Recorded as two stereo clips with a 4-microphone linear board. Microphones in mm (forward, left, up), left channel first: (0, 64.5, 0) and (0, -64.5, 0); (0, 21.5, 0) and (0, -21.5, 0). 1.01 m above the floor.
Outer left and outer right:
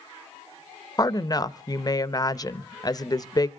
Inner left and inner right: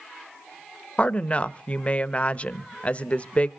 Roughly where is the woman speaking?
Left.